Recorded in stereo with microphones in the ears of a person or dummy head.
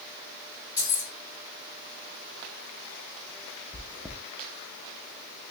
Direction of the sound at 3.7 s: Centre (ahead or behind).